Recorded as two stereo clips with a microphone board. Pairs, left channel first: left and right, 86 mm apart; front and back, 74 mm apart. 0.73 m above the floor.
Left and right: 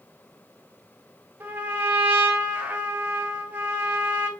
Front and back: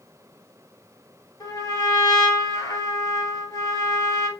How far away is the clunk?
No clunk in this recording.